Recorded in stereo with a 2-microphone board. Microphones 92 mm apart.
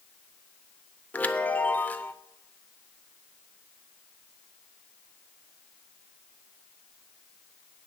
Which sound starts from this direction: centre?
A chime, at 1.1 s.